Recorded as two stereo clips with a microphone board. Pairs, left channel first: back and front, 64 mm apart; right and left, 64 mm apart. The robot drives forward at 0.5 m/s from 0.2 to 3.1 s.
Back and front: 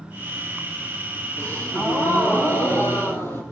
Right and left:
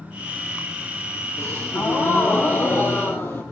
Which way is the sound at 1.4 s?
125° right.